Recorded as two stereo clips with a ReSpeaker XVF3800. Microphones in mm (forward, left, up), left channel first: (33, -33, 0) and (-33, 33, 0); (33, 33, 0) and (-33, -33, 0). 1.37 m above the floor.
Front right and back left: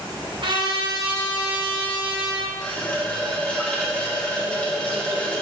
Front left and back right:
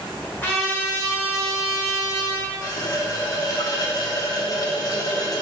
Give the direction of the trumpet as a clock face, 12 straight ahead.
8 o'clock.